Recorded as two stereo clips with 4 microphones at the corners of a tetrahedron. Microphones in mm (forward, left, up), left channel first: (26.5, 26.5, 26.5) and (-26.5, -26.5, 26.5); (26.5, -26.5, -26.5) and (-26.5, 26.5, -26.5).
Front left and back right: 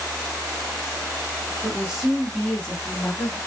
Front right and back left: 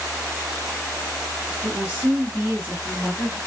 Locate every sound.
1.6 s a woman speaking: straight behind, 1.3 m; by 3.4 s 85° left, 1.5 m